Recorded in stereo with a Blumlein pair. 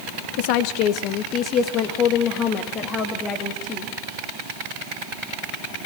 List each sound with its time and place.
0.4 s a woman speaking: 50° left, 1.1 m; by 3.9 s 20° left, 3 m